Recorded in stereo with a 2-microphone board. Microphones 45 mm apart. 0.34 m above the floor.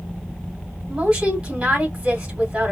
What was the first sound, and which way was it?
A woman speaking, 15° right (ahead or behind).